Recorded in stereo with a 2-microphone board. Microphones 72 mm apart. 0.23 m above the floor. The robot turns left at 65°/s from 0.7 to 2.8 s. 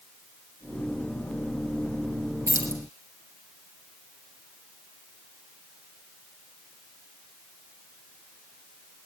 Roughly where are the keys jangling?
Right.